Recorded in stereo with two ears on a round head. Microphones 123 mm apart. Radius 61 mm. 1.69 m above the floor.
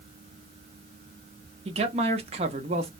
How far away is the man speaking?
About 0.7 m.